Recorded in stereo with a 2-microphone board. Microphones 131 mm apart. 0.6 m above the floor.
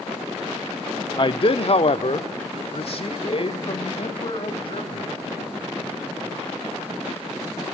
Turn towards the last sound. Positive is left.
turn(degrees=50)  # may be behind; listen again after turning